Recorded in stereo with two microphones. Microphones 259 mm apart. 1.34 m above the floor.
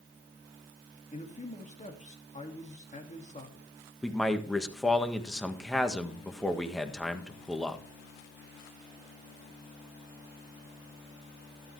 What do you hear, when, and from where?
1.1 s a man speaking: 25° left (ahead or behind), 2 m
4.0 s a man speaking: centre (ahead or behind), 1.5 m